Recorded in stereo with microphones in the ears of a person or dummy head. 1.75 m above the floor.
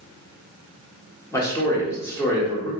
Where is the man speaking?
15° left (ahead or behind), 1.2 m.